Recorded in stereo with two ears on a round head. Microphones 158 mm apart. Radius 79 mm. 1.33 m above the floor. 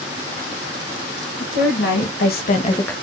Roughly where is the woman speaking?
Left.